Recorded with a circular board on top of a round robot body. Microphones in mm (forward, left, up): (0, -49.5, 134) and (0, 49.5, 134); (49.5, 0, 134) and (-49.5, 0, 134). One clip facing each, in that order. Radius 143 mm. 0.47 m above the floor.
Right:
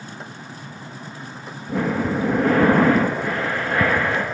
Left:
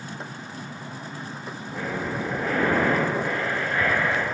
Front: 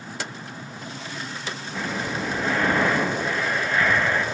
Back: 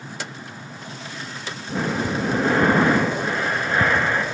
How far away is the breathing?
About 1.3 m.